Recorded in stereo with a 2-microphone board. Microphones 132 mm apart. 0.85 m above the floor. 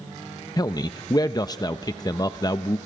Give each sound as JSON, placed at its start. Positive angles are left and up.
{"t": 0.6, "sound": "a man speaking", "side_deg": 30, "distance_m": 0.6}